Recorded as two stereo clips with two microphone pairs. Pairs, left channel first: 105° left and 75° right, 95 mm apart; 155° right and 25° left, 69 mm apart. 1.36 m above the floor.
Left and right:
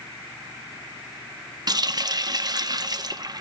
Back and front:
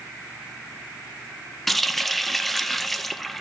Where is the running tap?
65° right, 0.5 m.